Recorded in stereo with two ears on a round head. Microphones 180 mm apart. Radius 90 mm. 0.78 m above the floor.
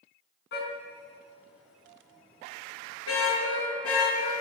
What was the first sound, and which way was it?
A car horn, 55° left (ahead or behind).